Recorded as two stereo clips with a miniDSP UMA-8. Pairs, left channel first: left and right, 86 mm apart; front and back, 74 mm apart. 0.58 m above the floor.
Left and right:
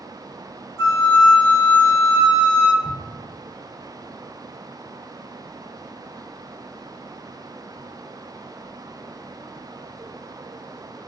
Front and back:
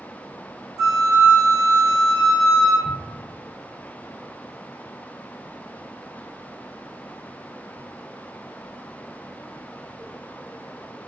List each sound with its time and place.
0.8 s a flute: 150° left, 1.9 m
2.8 s an explosion: 115° left, 1.4 m